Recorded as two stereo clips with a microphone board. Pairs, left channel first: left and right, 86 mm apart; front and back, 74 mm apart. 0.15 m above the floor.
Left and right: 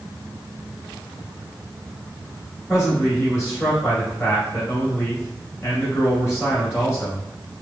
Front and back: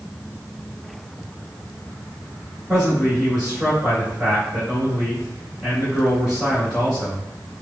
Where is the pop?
No pop in this recording.